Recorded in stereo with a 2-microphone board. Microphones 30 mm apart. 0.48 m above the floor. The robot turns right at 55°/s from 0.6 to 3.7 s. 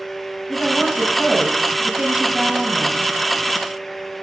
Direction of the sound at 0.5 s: 125° right.